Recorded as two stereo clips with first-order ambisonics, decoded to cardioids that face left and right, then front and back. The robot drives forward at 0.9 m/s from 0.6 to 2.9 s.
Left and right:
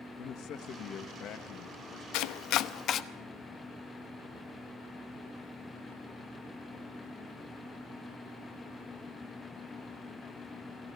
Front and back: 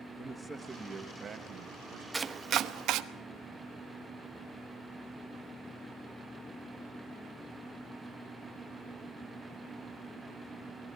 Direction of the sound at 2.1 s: 100° left.